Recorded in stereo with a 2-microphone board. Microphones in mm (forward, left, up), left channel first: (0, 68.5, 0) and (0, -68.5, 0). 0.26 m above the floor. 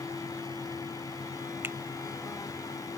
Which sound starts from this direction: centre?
A finger snap, at 1.6 s.